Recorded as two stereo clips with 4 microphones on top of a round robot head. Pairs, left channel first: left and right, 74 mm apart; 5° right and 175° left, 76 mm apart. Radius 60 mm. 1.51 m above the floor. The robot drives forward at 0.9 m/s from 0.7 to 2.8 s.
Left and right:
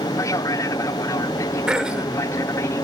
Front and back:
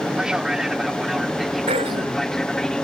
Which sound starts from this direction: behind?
Throat clearing, at 1.7 s.